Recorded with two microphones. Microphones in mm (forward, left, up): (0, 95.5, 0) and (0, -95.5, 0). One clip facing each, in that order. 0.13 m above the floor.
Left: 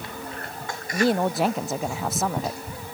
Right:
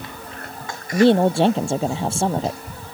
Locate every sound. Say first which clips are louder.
0.9 s a woman speaking: right 7 dB; 30° right (ahead or behind)